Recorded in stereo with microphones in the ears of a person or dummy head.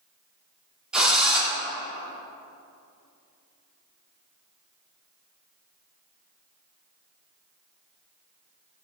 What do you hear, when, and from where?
0.9 s a drill: 5° right (ahead or behind), 3.5 m